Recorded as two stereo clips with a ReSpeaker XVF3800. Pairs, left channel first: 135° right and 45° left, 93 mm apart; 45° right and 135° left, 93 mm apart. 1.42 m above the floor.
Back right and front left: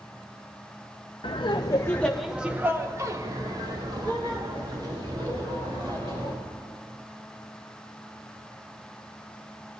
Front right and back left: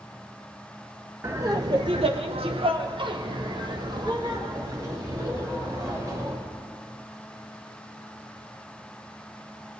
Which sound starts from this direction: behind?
Laughter, at 1.2 s.